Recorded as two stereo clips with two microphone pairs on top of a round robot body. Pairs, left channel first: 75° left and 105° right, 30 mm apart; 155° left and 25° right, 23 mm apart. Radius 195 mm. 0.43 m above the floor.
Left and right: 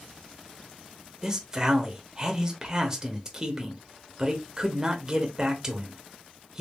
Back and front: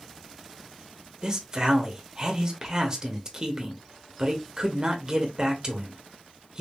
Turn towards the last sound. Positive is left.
turn(degrees=-55)